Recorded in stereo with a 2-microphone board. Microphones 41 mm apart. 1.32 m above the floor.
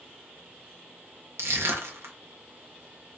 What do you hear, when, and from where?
1.4 s crushing: 80° right, 1.0 m